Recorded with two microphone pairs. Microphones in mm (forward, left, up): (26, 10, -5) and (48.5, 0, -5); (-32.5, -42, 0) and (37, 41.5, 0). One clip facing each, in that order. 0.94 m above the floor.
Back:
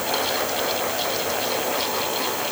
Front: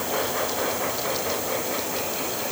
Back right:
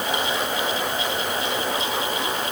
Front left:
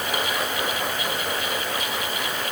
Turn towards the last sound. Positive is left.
No sound to turn to.